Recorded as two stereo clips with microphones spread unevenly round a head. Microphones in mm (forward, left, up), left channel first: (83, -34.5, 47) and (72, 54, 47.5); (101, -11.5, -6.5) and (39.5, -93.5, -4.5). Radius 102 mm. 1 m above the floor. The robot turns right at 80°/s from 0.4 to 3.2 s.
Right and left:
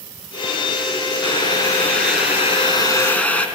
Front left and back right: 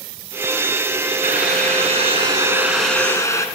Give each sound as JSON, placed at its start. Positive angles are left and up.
{"t": 1.2, "sound": "boiling", "azimuth_deg": -165, "distance_m": 5.0}